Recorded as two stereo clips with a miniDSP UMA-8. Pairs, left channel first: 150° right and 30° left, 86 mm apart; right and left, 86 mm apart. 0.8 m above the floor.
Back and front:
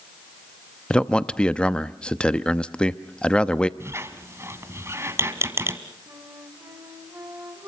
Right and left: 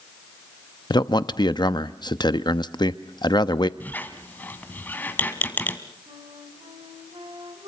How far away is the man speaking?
About 0.8 m.